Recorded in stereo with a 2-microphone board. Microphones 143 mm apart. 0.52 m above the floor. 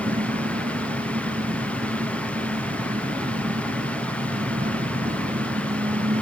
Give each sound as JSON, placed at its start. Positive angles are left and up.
{"t": 0.0, "sound": "an engine running", "side_deg": -55}